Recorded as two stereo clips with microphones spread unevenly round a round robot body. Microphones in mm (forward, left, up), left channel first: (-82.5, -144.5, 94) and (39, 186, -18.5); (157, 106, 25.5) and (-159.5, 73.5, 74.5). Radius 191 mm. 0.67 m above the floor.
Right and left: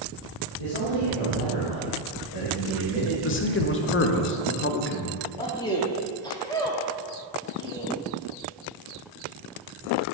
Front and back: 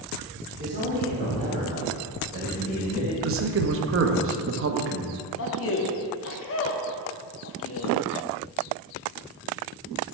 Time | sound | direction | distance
0.6 | a man speaking | 100° right | 2.5 m
3.2 | a man speaking | 170° right | 0.8 m
5.4 | a man speaking | 20° right | 0.9 m